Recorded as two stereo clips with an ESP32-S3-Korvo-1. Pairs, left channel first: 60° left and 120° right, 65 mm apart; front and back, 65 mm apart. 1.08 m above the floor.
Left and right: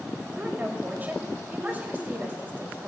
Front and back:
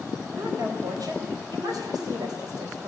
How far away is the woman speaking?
About 4 m.